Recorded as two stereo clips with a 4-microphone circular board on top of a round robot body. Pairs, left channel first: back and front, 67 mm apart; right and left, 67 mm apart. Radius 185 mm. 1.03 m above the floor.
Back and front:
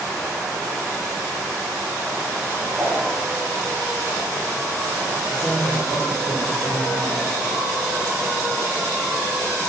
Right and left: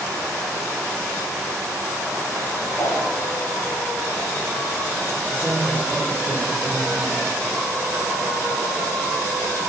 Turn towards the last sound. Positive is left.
turn(degrees=150)